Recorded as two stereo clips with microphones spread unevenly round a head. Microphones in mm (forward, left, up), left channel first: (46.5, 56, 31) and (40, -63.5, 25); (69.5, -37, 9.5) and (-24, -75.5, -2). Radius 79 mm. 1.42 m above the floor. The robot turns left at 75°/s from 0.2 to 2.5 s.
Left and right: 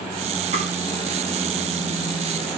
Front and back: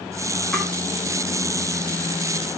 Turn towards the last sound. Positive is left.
turn(degrees=150)